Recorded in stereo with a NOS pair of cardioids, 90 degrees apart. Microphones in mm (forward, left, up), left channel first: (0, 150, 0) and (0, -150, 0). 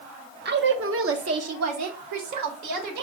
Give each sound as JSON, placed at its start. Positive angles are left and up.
{"t": 0.5, "sound": "a woman speaking", "azimuth_deg": -35, "distance_m": 1.1}